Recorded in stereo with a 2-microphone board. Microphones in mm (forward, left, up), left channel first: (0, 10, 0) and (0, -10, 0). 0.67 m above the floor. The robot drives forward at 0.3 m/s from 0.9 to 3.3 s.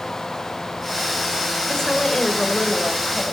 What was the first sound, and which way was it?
A woman speaking, 35° left (ahead or behind).